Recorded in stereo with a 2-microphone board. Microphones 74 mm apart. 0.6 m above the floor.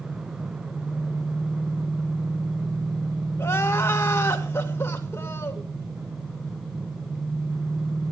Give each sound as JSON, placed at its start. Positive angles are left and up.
{"t": 0.0, "sound": "an engine running", "side_deg": -70, "distance_m": 5.5}
{"t": 3.4, "sound": "crying", "side_deg": 35, "distance_m": 2.0}